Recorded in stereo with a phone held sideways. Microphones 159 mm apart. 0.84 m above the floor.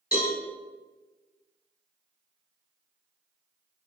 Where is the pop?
No pop in this recording.